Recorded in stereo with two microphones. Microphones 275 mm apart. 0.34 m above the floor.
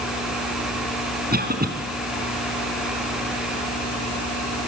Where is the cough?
35° right (ahead or behind), 4 m.